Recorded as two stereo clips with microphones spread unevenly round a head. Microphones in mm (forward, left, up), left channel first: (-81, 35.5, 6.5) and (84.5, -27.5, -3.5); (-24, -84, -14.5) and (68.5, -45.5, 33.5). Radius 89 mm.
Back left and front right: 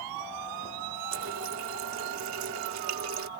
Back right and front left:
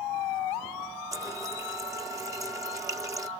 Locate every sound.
1.1 s a running tap: 30° right